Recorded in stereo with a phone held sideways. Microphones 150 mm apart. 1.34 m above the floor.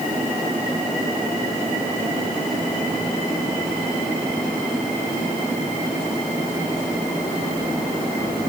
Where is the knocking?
No knocking in this recording.